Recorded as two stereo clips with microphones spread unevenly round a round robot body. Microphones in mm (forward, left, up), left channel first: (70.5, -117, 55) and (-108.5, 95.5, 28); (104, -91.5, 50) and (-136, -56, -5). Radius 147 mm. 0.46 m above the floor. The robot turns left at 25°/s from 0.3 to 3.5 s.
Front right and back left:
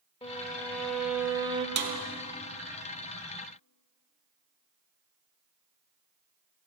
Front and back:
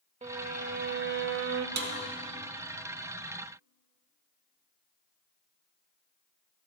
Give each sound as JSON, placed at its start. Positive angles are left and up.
{"t": 0.2, "sound": "a violin", "azimuth_deg": -125, "distance_m": 0.6}
{"t": 1.8, "sound": "a snare drum", "azimuth_deg": 165, "distance_m": 1.0}